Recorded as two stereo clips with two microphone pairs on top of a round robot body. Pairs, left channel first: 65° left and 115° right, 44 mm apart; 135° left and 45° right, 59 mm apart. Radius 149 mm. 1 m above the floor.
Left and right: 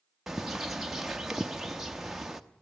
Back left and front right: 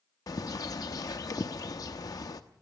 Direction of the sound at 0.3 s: 160° left.